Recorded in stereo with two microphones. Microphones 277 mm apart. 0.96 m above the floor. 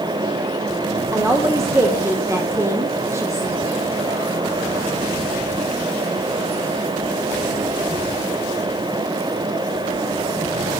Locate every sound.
1.1 s a woman speaking: 10° right (ahead or behind), 0.6 m